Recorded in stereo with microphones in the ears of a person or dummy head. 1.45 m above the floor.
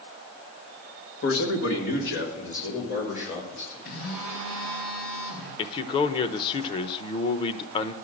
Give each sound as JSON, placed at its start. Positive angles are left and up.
{"t": 1.2, "sound": "a man speaking", "side_deg": 65, "distance_m": 1.8}
{"t": 3.9, "sound": "a phone buzzing", "side_deg": 80, "distance_m": 4.5}
{"t": 5.6, "sound": "a man speaking", "side_deg": 30, "distance_m": 0.8}